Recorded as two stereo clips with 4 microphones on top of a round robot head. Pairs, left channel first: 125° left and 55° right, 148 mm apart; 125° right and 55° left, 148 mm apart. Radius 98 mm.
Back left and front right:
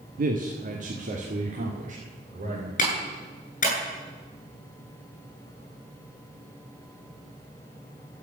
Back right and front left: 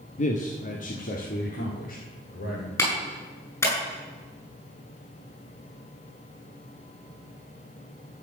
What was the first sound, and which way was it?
A man speaking, 85° right.